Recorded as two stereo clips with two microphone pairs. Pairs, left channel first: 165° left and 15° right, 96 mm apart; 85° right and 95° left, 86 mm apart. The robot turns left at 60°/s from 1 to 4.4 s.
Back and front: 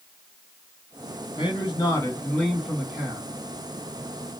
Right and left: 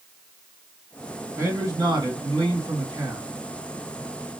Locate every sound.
1.4 s a man speaking: 150° left, 1.9 m; by 3.2 s 35° left, 1.9 m